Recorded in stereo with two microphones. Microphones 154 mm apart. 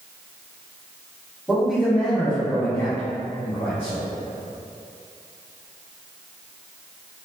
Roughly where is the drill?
No drill in this recording.